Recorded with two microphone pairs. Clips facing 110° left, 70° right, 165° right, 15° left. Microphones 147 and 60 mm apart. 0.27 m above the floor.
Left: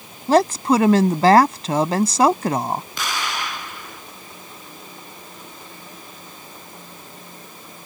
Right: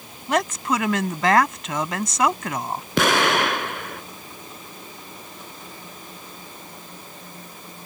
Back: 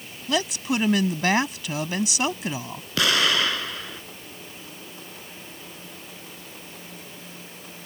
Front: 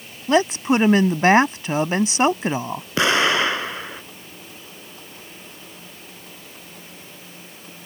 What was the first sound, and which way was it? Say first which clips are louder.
A woman speaking: left 7 dB, front 8 dB; 65° left.